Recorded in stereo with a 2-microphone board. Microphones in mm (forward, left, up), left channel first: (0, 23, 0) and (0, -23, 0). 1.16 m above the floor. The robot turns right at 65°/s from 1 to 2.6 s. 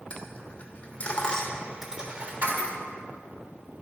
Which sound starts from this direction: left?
A dropped coin, at 0.1 s.